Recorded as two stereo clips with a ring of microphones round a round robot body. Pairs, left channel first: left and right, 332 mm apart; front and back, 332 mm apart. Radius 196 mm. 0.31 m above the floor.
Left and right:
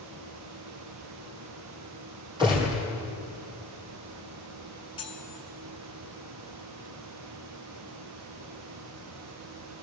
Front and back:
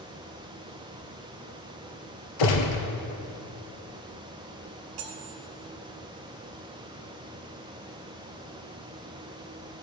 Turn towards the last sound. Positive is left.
turn(degrees=165)